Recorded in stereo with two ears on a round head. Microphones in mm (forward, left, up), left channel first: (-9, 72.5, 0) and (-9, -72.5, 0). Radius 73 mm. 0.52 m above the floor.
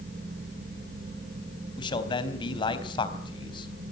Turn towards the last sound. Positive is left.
turn(degrees=30)  # may be behind; listen again after turning